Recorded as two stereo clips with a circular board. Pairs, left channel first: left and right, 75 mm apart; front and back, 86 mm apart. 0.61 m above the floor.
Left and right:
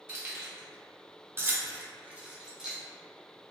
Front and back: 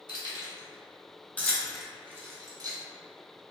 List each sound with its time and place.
0.1 s keys jangling: 30° right, 1.0 m; by 2.8 s 175° right, 0.7 m